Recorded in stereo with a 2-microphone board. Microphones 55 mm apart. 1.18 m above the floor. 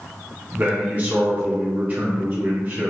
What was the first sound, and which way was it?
A man speaking, 30° right (ahead or behind).